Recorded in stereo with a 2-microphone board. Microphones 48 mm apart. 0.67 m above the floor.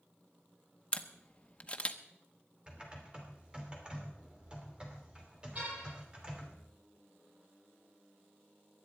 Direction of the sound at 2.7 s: 20° right (ahead or behind).